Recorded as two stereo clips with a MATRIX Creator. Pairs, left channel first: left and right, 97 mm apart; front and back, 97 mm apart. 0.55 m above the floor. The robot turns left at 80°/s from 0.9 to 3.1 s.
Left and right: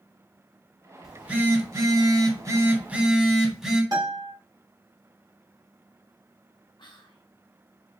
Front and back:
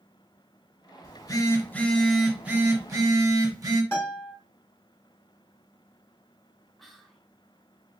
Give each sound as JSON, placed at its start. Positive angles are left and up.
{"t": 1.0, "sound": "a phone buzzing", "azimuth_deg": 0, "distance_m": 1.0}
{"t": 3.9, "sound": "a guitar", "azimuth_deg": -60, "distance_m": 1.9}
{"t": 6.8, "sound": "whispering", "azimuth_deg": 90, "distance_m": 1.0}